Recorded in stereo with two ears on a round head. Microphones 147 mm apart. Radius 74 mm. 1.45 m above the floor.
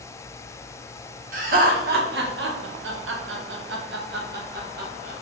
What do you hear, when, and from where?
1.3 s laughter: 50° right (ahead or behind), 2 m; by 5.1 s 60° right (ahead or behind), 2 m